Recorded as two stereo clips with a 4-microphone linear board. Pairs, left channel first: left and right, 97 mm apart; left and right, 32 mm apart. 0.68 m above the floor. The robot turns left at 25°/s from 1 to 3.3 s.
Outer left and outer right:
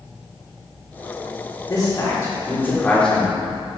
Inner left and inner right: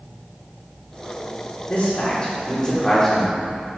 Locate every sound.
1.7 s a man speaking: 40° left (ahead or behind), 2.5 m; by 3.5 s 5° left (ahead or behind), 2.5 m